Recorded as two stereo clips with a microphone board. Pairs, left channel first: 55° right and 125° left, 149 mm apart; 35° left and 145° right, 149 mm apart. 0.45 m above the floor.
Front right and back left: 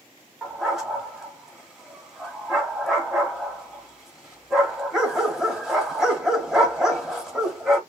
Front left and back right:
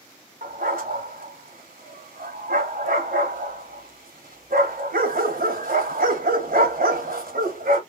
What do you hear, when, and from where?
0.4 s a dog barking: 150° right, 1.2 m